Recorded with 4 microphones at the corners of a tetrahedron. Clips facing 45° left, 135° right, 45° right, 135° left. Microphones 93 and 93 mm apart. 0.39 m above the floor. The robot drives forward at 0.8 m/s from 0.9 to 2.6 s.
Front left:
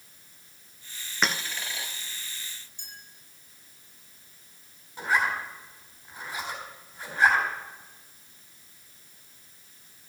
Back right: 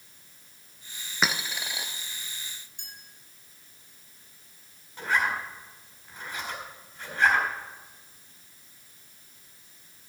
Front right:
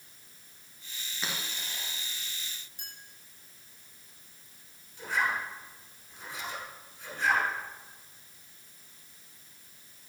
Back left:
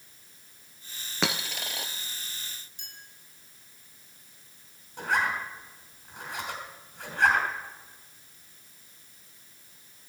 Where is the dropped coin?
140° left, 1.0 m; by 1.9 s 155° left, 1.4 m.